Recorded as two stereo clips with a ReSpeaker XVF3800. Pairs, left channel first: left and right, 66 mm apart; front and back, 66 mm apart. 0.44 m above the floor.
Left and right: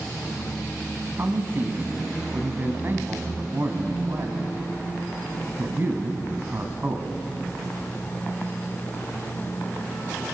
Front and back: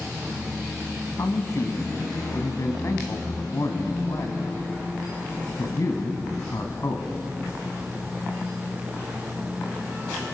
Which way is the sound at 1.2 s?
35° right.